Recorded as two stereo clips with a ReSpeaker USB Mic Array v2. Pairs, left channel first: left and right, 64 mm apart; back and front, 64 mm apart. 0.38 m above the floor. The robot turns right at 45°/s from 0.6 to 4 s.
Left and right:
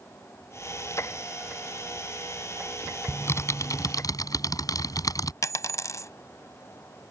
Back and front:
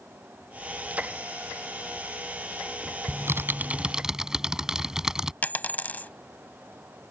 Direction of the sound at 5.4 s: 120° left.